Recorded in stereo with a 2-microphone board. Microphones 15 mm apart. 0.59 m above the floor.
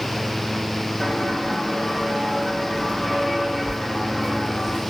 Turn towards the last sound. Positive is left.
turn(degrees=40)  # may be behind; listen again after turning